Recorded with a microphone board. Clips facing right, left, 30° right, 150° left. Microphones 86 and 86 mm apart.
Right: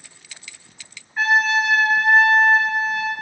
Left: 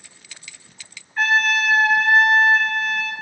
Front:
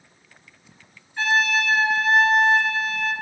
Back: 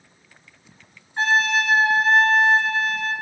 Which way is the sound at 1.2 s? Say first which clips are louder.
Right 1 dB, back 1 dB; 175° right.